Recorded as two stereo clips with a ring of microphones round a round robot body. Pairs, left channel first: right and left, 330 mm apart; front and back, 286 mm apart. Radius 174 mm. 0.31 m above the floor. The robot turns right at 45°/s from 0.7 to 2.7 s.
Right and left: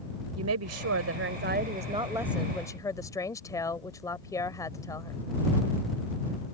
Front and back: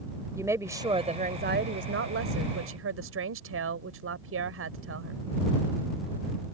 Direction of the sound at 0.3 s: 105° left.